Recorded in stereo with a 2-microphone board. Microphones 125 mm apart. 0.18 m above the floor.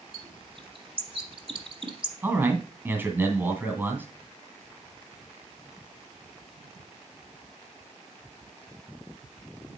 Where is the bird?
45° right (ahead or behind), 1.1 m.